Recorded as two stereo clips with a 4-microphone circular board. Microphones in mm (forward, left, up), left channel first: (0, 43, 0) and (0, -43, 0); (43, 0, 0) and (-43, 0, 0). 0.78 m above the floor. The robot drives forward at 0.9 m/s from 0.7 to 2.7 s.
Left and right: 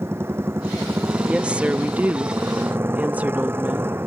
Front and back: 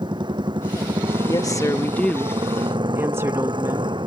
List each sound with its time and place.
0.0 s a motorcycle: 155° right
1.2 s a woman speaking: 15° right; by 3.9 s 145° right